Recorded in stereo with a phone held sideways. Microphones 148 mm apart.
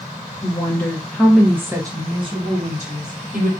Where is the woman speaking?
25° left (ahead or behind), 0.9 m; by 3.5 s 60° right (ahead or behind), 1.3 m.